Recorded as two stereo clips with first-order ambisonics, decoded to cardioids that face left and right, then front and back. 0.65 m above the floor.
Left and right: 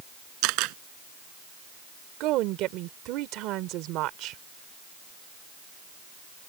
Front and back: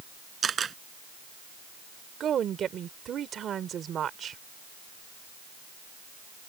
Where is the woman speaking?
120° right.